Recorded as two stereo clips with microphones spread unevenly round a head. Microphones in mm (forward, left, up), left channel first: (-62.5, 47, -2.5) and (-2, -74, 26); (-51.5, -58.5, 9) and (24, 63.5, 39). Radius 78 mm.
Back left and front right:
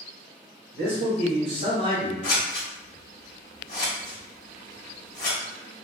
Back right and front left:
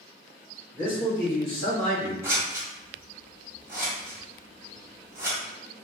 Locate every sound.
0.7 s a man speaking: 40° right, 1.2 m; by 2.1 s 95° right, 0.9 m
2.2 s scissors: 105° left, 0.9 m